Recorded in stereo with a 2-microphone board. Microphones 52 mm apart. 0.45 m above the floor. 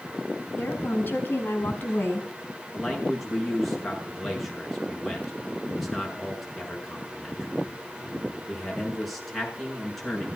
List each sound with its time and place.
0.6 s a woman speaking: 35° left (ahead or behind), 6 m; by 2.3 s 45° left (ahead or behind), 4.5 m
2.7 s a man speaking: centre (ahead or behind), 7 m